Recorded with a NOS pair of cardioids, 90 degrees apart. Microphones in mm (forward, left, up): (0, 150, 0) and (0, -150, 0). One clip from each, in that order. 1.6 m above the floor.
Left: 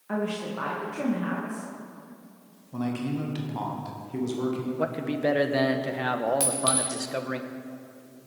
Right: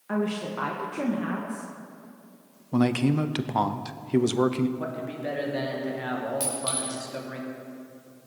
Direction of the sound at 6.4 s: 35° left.